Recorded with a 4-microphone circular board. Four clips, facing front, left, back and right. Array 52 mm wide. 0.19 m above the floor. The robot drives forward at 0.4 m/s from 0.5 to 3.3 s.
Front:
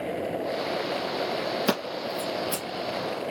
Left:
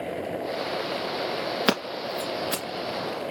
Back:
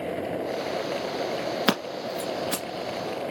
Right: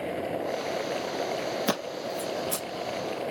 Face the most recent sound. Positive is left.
turn(degrees=145)